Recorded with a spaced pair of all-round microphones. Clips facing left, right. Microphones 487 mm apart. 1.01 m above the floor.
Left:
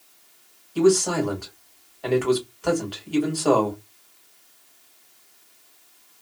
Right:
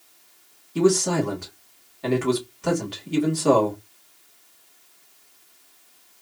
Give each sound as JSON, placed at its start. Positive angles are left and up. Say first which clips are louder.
{"t": 0.8, "sound": "a man speaking", "louder": "left 1 dB", "side_deg": -40, "distance_m": 1.6}